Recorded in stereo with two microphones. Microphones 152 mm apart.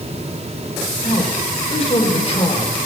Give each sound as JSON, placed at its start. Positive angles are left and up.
{"t": 1.0, "sound": "a man speaking", "side_deg": 40, "distance_m": 3.0}